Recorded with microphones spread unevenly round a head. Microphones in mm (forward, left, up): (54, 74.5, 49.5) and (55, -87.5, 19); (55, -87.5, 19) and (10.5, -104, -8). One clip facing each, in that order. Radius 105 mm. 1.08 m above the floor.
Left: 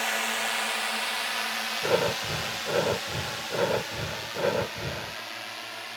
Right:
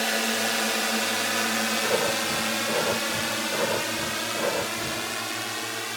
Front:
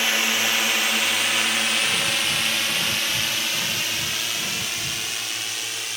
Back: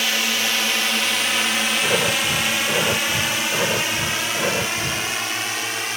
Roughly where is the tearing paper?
I don't hear tearing paper.